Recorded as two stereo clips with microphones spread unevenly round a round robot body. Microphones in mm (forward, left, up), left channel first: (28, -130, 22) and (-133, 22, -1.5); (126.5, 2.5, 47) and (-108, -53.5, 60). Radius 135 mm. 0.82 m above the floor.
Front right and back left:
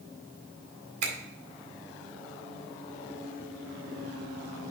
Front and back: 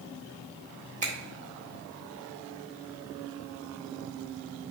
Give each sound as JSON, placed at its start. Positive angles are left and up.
{"t": 1.0, "sound": "a finger snap", "azimuth_deg": 130, "distance_m": 2.0}